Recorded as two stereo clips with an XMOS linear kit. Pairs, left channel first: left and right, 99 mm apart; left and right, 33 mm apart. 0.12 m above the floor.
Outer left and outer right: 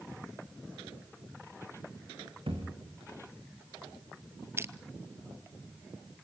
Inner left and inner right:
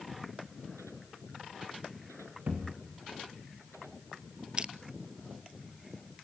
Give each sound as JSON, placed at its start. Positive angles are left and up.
{"t": 2.5, "sound": "a thud", "side_deg": -60, "distance_m": 5.0}
{"t": 4.6, "sound": "crushing", "side_deg": -25, "distance_m": 0.6}